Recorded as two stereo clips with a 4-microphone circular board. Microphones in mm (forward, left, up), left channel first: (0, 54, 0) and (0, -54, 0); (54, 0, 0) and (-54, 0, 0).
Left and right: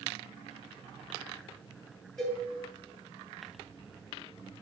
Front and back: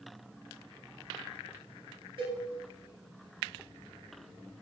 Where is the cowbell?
175° left, 2.5 m.